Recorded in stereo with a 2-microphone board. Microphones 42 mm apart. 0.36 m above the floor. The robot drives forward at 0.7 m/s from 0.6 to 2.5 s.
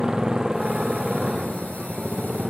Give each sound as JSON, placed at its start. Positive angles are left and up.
{"t": 0.0, "sound": "a motorcycle", "side_deg": -15}